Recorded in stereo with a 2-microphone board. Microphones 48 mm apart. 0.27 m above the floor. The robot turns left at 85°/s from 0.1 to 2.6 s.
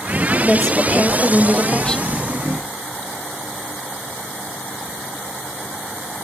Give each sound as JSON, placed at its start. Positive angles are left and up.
{"t": 0.4, "sound": "a woman speaking", "side_deg": 5, "distance_m": 1.4}